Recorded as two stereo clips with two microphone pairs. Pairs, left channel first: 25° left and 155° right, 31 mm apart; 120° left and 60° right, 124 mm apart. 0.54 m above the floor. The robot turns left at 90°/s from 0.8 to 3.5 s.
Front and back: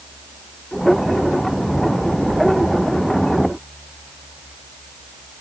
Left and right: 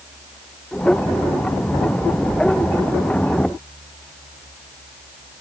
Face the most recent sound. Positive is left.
No sound to turn to.